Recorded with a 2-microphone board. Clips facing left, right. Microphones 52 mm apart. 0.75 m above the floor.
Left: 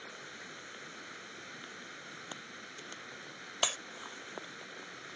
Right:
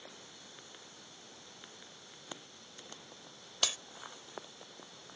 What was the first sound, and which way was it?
Running water, 65° left (ahead or behind).